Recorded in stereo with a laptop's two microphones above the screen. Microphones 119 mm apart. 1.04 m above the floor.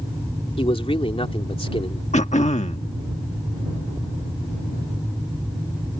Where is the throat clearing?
80° left.